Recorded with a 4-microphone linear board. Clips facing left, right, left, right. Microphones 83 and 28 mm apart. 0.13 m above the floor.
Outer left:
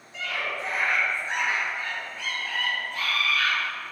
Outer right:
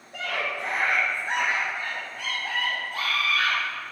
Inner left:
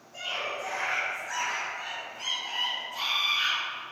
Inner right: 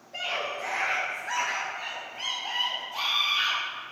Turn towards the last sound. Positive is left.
turn(degrees=-35)  # may be behind; listen again after turning